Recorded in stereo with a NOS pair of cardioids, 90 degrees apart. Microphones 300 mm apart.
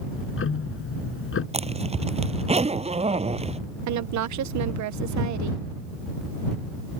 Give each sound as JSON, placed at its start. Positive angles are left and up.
{"t": 0.1, "sound": "ticking", "azimuth_deg": 45}
{"t": 1.5, "sound": "a zipper", "azimuth_deg": -20}
{"t": 3.9, "sound": "a woman speaking", "azimuth_deg": -70}